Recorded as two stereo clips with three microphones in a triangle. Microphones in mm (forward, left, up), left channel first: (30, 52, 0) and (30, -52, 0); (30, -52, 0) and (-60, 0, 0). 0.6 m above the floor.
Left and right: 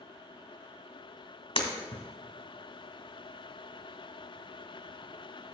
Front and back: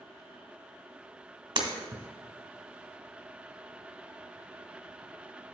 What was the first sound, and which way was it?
Breaking glass, 115° left.